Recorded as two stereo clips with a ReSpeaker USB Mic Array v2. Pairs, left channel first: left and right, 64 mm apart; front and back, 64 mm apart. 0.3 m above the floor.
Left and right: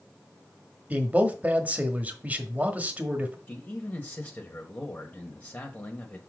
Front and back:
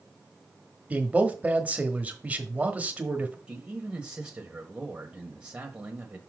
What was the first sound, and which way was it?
A man speaking, 135° right.